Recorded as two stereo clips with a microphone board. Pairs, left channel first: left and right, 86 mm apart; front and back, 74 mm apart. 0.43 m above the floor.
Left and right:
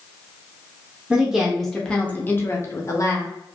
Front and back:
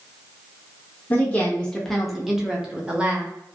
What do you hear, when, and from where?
1.1 s a woman speaking: 30° right, 0.8 m; by 3.3 s 115° left, 1.1 m